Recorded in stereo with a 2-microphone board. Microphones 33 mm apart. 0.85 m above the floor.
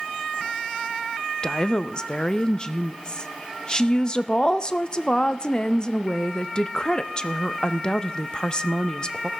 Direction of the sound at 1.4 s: 30° left (ahead or behind).